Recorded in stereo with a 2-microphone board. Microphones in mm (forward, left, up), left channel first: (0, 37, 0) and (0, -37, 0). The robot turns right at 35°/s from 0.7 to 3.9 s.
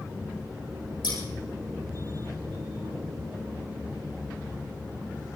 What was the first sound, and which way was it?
Scissors, 80° left.